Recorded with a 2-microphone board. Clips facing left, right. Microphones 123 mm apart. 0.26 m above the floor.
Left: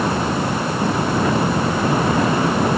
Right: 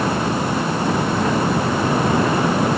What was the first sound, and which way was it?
Only background noise.